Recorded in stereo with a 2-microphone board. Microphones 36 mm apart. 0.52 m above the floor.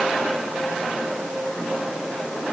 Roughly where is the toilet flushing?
No toilet flushing in this recording.